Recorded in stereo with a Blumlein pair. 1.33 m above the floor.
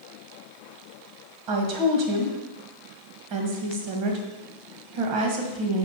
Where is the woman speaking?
40° right, 1.4 m.